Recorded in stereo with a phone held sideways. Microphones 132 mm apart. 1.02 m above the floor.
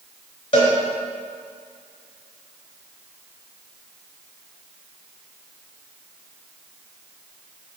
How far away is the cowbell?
About 3 m.